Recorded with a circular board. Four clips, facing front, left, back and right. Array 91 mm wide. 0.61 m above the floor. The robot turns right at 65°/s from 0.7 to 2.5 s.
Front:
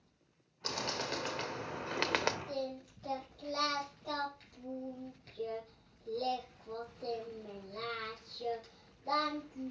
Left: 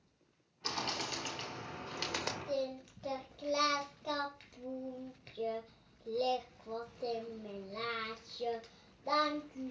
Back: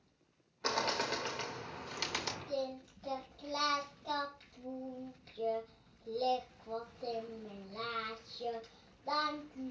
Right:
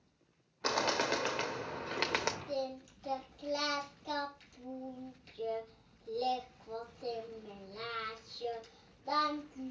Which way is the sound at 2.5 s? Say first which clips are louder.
Left 1 dB, back 1 dB; 85° left.